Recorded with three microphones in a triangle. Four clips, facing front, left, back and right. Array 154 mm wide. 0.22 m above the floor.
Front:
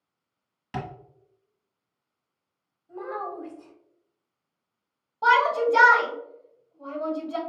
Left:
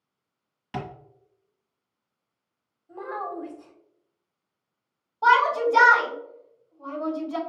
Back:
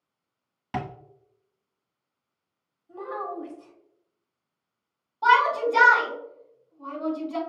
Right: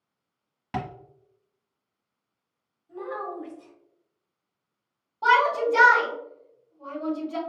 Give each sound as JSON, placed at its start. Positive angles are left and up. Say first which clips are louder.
{"t": 0.7, "sound": "tapping", "louder": "right 2 dB, back 2 dB", "azimuth_deg": -135, "distance_m": 1.0}
{"t": 2.9, "sound": "a child speaking", "louder": "left 1 dB, even", "azimuth_deg": 60, "distance_m": 0.9}
{"t": 5.2, "sound": "a shout", "louder": "left 1 dB, even", "azimuth_deg": 10, "distance_m": 1.7}